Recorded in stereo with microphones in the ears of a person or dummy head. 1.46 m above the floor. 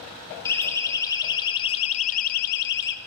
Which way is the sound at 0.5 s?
15° left (ahead or behind).